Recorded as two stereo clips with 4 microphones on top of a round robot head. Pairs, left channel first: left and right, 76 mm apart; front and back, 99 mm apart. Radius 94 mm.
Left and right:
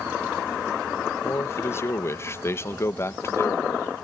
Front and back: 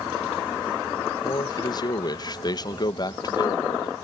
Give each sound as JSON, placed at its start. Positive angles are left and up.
{"t": 1.2, "sound": "a man speaking", "azimuth_deg": 40}